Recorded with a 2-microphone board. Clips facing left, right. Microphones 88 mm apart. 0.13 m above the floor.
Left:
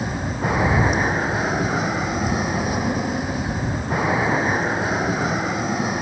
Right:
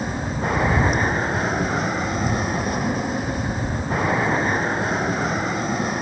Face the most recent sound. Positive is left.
turn(degrees=0)  # may be behind; listen again after turning